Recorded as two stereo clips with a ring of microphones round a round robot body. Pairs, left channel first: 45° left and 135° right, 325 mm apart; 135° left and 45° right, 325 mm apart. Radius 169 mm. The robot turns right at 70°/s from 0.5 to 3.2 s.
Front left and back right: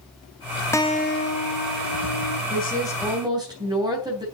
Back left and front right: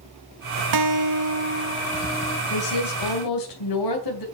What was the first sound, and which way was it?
A guitar, 35° right.